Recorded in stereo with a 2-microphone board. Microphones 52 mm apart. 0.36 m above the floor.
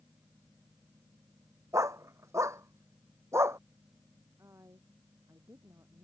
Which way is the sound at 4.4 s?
85° right.